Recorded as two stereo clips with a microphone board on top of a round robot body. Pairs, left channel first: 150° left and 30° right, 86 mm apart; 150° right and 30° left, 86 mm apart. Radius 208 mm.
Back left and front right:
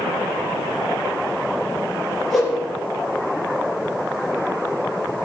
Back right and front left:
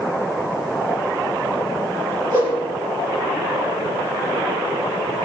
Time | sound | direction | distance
2.3 | a whoosh | 65° left | 5 m